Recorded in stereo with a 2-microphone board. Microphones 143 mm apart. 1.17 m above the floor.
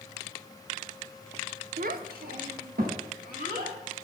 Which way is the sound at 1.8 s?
70° right (ahead or behind).